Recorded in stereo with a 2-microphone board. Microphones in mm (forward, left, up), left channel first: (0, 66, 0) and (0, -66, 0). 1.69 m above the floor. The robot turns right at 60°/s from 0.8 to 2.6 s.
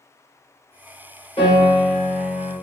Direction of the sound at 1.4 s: 135° left.